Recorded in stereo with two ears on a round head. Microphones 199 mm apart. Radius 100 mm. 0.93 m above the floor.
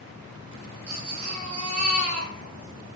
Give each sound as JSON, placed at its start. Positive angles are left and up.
{"t": 0.9, "sound": "a baby crying", "side_deg": -80, "distance_m": 5.0}